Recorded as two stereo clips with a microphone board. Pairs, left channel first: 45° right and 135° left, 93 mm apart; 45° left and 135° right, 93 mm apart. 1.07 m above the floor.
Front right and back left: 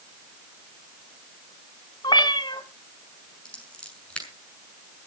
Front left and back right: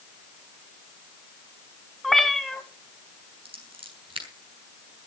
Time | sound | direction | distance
2.0 | a cat meowing | 40° right | 1.4 m
3.5 | scissors | 125° right | 6.5 m